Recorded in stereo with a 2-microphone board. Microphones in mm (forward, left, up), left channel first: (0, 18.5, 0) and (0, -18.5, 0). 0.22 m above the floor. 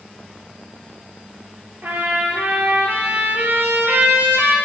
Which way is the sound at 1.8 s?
75° right (ahead or behind).